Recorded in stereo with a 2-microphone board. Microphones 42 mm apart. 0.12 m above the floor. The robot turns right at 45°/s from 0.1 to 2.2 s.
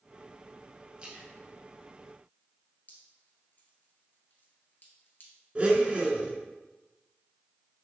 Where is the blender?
30° right (ahead or behind), 1.9 m.